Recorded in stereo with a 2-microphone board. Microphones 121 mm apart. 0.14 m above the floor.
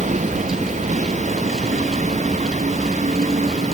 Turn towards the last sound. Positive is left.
turn(degrees=-80)